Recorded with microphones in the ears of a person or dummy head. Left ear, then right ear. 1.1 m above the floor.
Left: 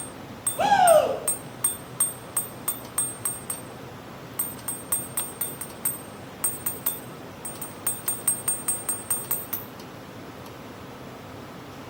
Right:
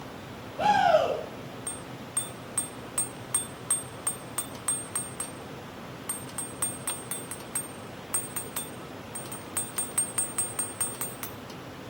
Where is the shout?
40° left (ahead or behind), 2.5 m.